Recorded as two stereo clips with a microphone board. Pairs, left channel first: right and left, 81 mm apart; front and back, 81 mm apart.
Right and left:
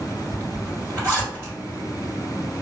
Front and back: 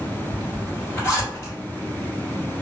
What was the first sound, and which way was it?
A zipper, 45° left.